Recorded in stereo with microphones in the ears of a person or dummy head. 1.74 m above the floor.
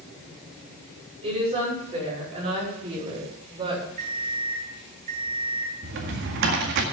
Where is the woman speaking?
30° right (ahead or behind), 5.5 m.